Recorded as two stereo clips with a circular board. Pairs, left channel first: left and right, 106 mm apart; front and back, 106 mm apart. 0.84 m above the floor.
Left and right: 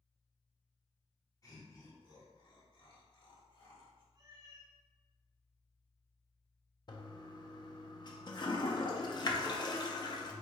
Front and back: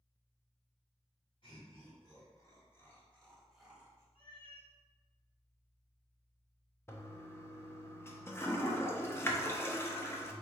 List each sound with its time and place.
1.4 s laughter: 35° left, 1.9 m; by 4.0 s 115° left, 1.2 m
4.2 s a cat meowing: 40° right, 0.8 m
6.9 s a toilet flushing: 60° left, 0.5 m